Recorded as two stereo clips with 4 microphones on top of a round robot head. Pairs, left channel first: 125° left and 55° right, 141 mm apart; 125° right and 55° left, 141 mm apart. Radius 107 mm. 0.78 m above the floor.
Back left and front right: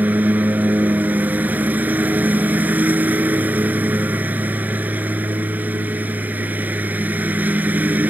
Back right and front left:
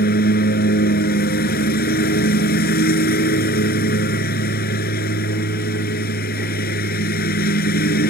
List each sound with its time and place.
0.0 s a lawn mower: 135° right